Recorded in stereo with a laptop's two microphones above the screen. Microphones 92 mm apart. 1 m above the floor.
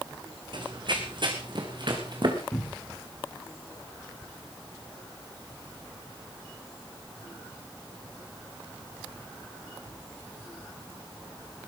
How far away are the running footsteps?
About 3 m.